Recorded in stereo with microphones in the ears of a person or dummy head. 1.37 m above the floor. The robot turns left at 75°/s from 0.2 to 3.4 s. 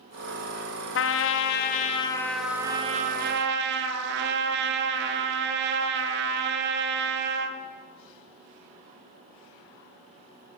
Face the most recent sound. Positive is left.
turn(degrees=-70)